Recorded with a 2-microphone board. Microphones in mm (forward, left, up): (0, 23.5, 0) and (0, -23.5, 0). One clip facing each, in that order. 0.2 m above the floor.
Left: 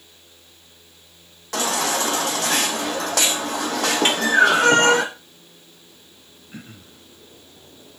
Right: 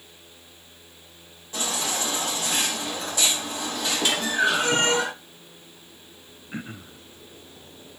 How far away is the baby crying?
About 3 m.